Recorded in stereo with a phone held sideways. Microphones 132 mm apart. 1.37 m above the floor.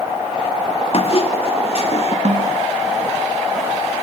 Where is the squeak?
50° left (ahead or behind), 2.5 m.